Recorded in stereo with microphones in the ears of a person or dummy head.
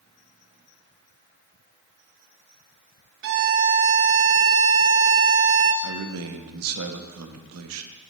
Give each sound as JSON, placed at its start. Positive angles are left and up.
{"t": 3.2, "sound": "a violin", "side_deg": -65, "distance_m": 0.6}
{"t": 5.8, "sound": "a man speaking", "side_deg": -70, "distance_m": 0.7}